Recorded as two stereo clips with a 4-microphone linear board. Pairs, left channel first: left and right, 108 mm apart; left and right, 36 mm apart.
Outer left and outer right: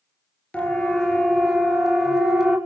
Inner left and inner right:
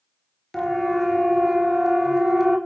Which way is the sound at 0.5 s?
10° left (ahead or behind).